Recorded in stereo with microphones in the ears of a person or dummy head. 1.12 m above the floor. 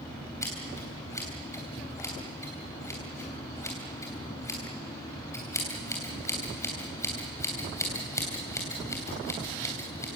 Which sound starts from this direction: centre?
Scissors, at 0.4 s.